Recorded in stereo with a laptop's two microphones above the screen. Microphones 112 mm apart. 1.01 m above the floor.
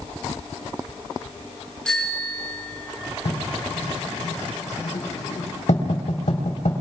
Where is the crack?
I don't hear a crack.